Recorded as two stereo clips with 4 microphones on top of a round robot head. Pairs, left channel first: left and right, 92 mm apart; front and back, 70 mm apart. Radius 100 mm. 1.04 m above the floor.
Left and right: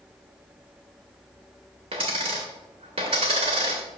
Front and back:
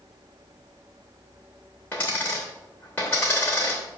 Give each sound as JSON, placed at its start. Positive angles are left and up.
{"t": 1.9, "sound": "a dropped coin", "azimuth_deg": -75, "distance_m": 0.8}